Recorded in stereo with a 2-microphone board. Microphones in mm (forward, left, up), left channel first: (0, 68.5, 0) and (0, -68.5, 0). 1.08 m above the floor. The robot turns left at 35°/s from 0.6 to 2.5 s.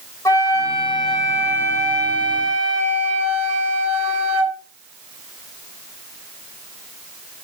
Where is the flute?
20° left, 5 m; by 4.6 s 45° right, 5 m.